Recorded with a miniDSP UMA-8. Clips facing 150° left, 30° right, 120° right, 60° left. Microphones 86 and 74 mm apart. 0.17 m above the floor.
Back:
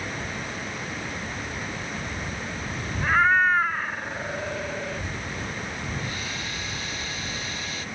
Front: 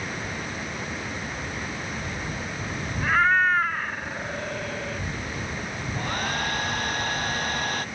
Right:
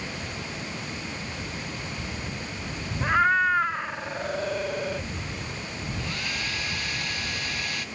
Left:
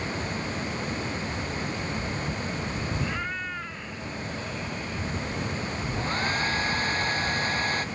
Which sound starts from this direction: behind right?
A cat meowing, at 3.0 s.